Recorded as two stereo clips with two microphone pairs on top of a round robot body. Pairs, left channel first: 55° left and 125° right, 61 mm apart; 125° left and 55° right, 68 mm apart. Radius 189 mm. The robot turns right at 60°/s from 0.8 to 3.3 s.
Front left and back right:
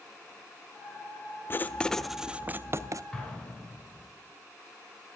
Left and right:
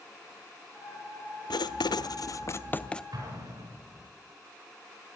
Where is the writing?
110° left, 0.6 m; by 3.0 s 160° right, 0.6 m.